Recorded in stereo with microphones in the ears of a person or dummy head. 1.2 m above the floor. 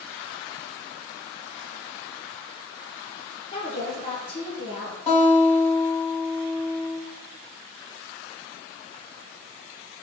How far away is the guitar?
About 2.0 m.